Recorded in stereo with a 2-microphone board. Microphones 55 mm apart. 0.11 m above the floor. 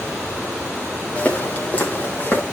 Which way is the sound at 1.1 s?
20° left (ahead or behind).